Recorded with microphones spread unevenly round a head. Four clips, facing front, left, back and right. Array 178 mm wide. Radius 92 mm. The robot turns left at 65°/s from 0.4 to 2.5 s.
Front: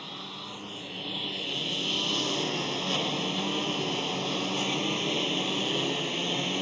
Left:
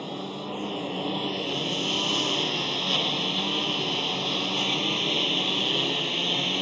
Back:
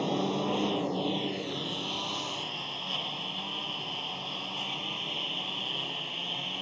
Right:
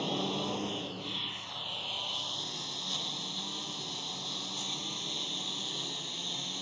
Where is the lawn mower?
175° left; by 6.6 s 40° left.